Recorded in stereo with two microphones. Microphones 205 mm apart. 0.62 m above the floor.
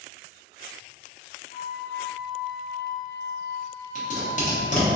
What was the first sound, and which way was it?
A flute, 50° left (ahead or behind).